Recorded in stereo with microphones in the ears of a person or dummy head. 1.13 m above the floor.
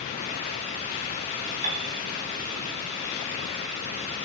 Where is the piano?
45° right (ahead or behind), 2.5 m.